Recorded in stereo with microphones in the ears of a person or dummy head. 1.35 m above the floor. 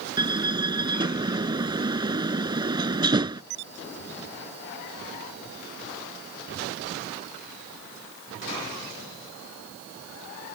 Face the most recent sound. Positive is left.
turn(degrees=-25)  # may be behind; listen again after turning